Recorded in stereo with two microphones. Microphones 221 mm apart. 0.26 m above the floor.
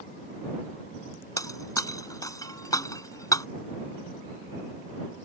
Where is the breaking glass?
15° left (ahead or behind).